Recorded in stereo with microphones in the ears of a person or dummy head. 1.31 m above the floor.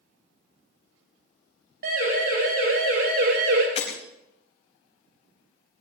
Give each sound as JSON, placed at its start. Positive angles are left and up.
{"t": 1.8, "sound": "a siren", "side_deg": -55, "distance_m": 4.5}
{"t": 3.8, "sound": "breaking glass", "side_deg": 35, "distance_m": 4.0}